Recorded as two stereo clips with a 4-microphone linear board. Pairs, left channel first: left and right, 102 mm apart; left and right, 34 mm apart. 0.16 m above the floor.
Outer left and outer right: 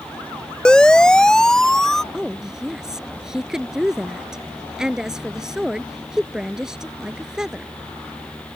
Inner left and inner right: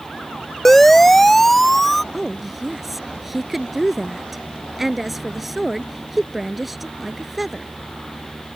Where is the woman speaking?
5° right (ahead or behind).